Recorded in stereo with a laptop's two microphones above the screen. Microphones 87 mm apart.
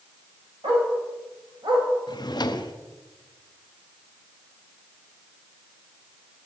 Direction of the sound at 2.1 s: 50° left (ahead or behind).